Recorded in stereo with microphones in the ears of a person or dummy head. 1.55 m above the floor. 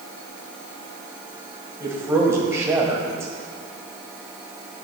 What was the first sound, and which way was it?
A man speaking, 15° right (ahead or behind).